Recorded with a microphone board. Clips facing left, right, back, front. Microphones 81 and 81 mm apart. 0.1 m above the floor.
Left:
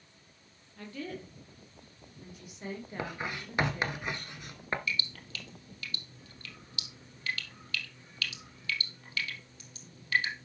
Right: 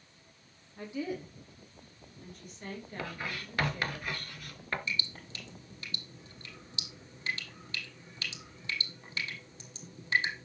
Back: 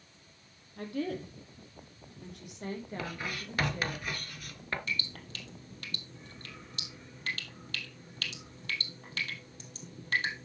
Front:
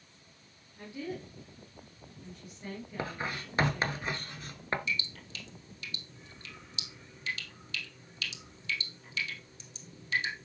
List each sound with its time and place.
0.8 s a woman speaking: 165° right, 3.5 m; by 4.0 s 160° left, 6 m
3.0 s writing: 40° left, 1.3 m
4.9 s dripping: 150° right, 3 m